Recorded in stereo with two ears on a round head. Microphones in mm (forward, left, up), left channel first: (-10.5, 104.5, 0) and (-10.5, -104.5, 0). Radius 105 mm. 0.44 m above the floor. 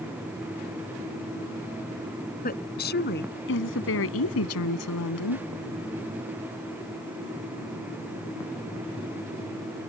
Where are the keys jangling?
No keys jangling in this recording.